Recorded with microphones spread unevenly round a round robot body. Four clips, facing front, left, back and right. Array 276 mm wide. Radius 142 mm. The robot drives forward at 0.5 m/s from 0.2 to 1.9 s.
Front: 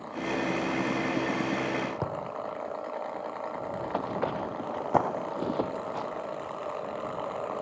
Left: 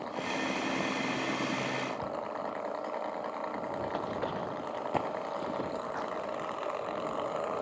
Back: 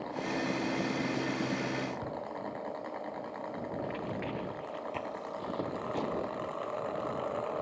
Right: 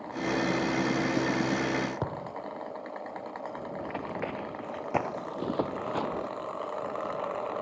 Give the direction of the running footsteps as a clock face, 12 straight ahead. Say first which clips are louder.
Right 1 dB, front 9 dB; 12 o'clock.